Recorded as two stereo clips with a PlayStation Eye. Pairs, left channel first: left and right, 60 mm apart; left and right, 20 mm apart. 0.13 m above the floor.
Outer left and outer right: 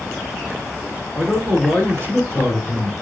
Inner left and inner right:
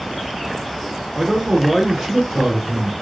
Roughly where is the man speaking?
Right.